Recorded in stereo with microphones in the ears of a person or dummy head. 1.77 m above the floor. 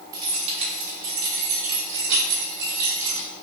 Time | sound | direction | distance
0.1 | keys jangling | 15° right (ahead or behind) | 1.0 m